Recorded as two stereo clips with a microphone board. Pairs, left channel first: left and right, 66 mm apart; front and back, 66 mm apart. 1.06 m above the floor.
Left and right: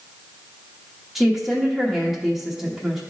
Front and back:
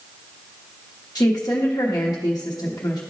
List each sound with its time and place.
1.1 s a woman speaking: 5° right, 1.1 m